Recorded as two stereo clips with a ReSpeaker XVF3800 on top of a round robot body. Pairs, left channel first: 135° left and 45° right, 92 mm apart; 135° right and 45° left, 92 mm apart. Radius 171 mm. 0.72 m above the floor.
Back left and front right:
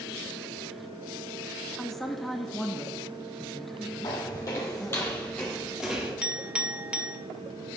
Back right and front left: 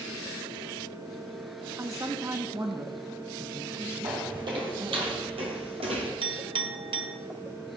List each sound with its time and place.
1.8 s a man speaking: 50° left, 1.2 m
4.0 s footsteps: 85° left, 2 m; by 6.1 s 25° left, 1.2 m
6.2 s a clink: 35° left, 1.2 m